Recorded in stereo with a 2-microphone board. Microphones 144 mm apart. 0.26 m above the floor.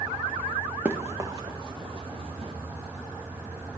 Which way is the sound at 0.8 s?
15° right (ahead or behind).